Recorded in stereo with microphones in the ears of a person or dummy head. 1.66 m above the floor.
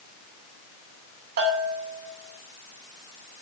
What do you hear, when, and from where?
1.4 s a bell: 50° right (ahead or behind), 2.5 m